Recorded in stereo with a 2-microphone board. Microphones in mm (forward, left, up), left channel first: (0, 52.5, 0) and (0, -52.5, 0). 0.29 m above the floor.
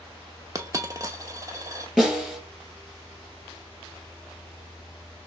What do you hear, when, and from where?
0.6 s a dropped coin: 30° right (ahead or behind), 0.6 m
2.0 s a snare drum: 5° right (ahead or behind), 3.5 m